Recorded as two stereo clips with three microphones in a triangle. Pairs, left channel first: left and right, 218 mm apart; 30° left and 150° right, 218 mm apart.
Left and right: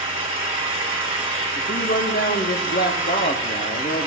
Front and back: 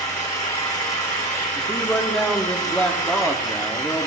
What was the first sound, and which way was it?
An engine running, 30° right.